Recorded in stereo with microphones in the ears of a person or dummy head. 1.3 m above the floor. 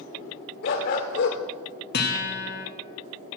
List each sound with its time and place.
0.6 s a dog barking: 45° left (ahead or behind), 1.2 m
1.9 s a guitar: 55° left (ahead or behind), 1.4 m